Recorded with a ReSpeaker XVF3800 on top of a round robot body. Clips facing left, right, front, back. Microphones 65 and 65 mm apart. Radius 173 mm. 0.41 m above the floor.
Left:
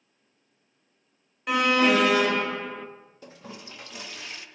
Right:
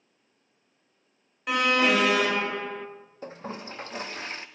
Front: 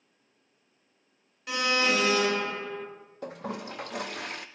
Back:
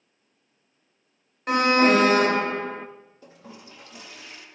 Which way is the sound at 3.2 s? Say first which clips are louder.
Right 7 dB, front 13 dB; 35° right.